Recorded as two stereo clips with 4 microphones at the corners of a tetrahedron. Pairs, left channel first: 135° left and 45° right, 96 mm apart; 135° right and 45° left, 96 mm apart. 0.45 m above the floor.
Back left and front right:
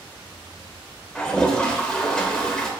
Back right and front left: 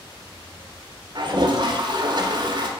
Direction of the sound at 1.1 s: 55° left.